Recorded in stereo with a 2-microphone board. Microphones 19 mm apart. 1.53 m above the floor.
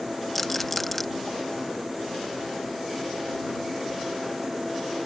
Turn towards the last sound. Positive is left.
turn(degrees=10)  # may be behind; listen again after turning